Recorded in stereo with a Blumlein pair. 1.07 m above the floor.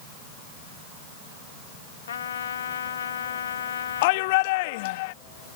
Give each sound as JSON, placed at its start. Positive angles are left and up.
{"t": 2.1, "sound": "a trumpet", "azimuth_deg": 65}
{"t": 4.0, "sound": "a shout", "azimuth_deg": 50}